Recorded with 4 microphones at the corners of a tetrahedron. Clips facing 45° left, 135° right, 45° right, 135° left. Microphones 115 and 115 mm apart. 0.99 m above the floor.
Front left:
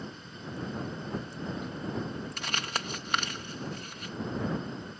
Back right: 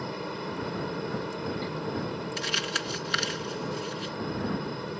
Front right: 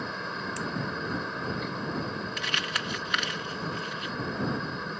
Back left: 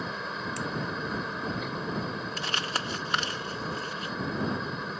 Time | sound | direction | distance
0.0 | a helicopter | 135° right | ?
2.4 | crumpling | 80° left | ?